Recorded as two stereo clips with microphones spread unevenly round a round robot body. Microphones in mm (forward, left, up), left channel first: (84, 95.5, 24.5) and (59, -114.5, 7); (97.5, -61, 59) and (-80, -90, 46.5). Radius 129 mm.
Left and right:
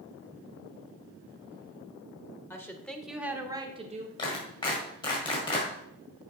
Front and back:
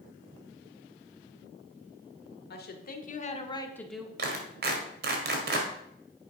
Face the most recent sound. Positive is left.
turn(degrees=155)